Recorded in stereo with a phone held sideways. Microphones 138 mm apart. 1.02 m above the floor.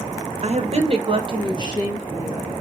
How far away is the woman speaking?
About 0.8 m.